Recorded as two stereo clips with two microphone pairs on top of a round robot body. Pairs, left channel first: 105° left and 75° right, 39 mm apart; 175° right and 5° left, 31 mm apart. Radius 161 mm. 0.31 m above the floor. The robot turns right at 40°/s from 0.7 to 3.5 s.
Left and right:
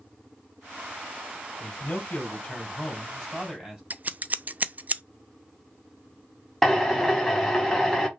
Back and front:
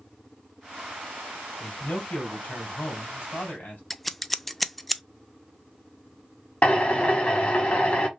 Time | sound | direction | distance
1.6 | a man speaking | 130° left | 2.5 m
3.9 | scissors | 95° right | 0.5 m
6.6 | a drill | 170° right | 1.8 m